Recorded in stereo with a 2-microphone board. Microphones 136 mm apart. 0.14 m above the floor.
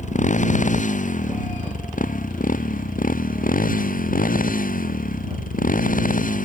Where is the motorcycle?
65° left (ahead or behind); by 6.5 s 75° left (ahead or behind).